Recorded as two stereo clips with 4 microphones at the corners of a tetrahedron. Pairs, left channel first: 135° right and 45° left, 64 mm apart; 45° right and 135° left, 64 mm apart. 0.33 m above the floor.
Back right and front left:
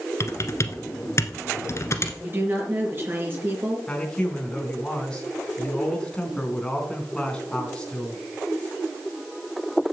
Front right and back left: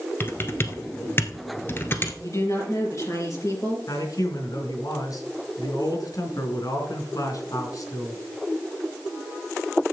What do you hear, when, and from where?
0.2 s typing on a keyboard: 95° right, 1.3 m
2.2 s a woman speaking: 10° right, 5 m
3.9 s a man speaking: 60° right, 3.5 m